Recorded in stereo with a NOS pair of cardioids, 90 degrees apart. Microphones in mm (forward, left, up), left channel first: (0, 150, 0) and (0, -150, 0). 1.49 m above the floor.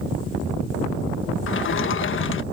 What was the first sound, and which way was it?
A sliding door, 45° left.